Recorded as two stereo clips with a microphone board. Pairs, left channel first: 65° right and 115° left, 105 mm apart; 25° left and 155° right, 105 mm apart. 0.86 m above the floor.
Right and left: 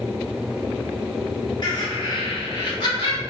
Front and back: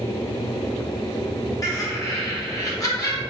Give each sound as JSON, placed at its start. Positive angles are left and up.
{"t": 1.6, "sound": "laughter", "azimuth_deg": -30, "distance_m": 1.2}